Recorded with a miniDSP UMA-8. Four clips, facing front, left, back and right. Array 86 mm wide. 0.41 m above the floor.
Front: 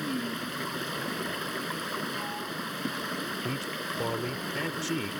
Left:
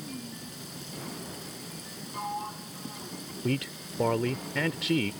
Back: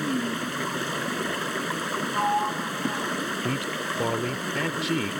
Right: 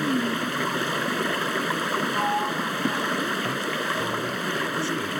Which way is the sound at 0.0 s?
110° right.